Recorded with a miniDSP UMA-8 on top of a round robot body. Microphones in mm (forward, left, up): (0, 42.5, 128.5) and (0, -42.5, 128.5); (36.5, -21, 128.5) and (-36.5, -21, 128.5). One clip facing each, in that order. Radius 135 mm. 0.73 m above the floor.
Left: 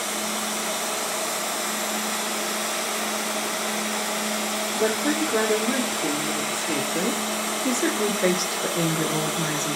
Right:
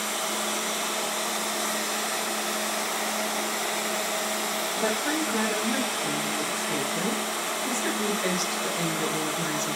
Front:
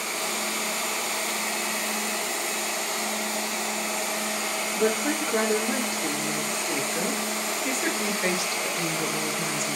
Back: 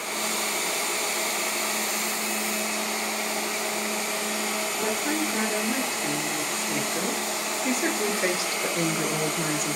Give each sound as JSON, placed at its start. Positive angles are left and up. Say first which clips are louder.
{"t": 4.8, "sound": "a woman speaking", "louder": "left 5 dB, front 4 dB", "azimuth_deg": 50, "distance_m": 2.0}